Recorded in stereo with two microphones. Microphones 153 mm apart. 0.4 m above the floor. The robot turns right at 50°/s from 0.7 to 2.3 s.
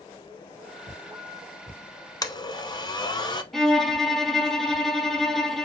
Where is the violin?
Centre (ahead or behind), 0.7 m.